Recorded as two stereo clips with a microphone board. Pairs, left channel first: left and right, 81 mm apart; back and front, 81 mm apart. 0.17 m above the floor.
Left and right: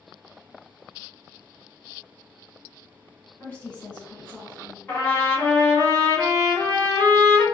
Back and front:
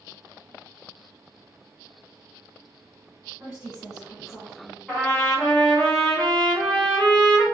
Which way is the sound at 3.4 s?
45° left.